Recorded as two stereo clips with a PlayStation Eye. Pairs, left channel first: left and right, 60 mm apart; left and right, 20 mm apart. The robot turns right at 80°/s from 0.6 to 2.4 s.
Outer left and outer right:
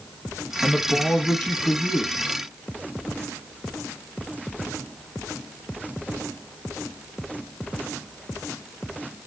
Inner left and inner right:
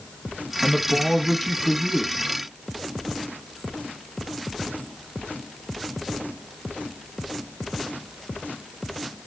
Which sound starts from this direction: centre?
A man speaking, at 0.6 s.